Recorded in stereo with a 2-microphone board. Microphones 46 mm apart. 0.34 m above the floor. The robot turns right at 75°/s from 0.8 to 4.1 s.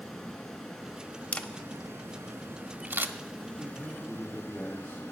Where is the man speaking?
5° left, 5 m; by 5.0 s 45° left, 5 m.